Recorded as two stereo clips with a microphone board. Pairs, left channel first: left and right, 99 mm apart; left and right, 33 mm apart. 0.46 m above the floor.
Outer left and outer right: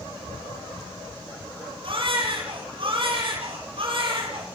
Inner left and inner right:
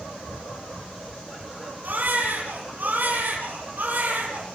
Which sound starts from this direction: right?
A baby crying, at 1.8 s.